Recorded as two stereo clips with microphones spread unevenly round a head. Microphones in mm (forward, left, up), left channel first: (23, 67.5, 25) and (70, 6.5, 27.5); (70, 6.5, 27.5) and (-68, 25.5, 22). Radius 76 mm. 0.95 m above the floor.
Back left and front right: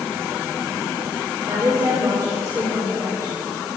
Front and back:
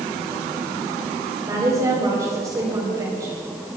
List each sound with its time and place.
1.5 s a woman speaking: 120° right, 3.5 m